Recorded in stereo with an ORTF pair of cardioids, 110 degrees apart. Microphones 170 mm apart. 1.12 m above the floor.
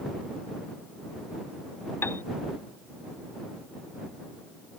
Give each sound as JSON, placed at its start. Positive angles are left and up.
{"t": 2.0, "sound": "a piano", "azimuth_deg": 15}